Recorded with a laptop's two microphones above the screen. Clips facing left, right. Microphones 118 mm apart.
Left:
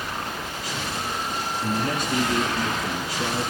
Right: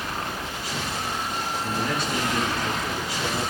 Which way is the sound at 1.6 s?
45° left (ahead or behind).